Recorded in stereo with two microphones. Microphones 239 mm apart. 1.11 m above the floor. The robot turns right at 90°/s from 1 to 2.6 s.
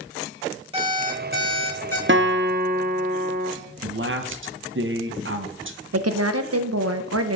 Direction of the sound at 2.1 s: 100° right.